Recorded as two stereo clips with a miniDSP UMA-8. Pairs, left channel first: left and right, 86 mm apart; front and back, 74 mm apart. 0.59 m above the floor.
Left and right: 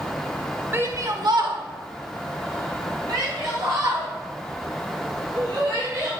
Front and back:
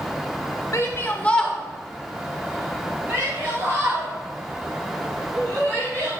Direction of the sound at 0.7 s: 35° right.